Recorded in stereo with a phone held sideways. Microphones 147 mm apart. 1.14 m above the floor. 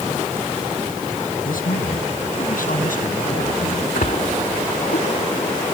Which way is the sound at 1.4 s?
85° left.